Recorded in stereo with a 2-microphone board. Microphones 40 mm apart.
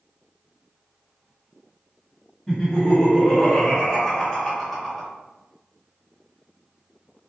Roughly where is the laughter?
Centre.